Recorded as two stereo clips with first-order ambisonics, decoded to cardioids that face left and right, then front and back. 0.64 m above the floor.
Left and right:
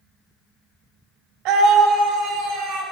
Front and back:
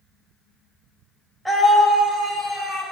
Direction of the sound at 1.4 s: 90° right.